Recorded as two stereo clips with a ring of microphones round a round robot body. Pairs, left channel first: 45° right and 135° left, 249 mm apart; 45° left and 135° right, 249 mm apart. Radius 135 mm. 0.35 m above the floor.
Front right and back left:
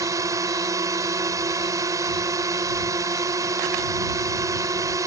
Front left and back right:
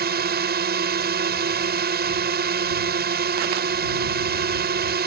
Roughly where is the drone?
Behind right.